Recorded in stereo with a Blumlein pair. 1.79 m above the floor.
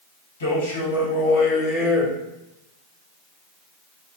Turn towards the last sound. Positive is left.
turn(degrees=-15)